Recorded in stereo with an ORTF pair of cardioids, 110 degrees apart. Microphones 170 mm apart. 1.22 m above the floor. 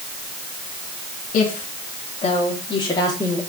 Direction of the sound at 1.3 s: 55° left.